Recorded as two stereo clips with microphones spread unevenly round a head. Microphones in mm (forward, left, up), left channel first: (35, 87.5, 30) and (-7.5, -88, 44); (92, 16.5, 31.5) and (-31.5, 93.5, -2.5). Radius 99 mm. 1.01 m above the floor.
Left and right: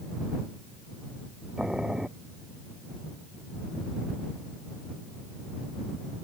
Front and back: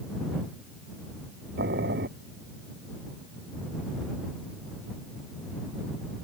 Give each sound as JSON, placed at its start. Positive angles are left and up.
{"t": 1.6, "sound": "boiling", "azimuth_deg": 170}